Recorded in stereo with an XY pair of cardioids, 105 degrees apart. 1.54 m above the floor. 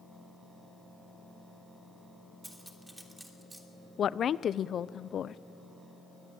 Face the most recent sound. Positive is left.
turn(degrees=50)